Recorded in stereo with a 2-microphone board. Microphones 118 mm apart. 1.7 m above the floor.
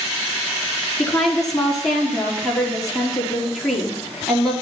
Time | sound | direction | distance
1.0 | a woman speaking | centre (ahead or behind) | 4.5 m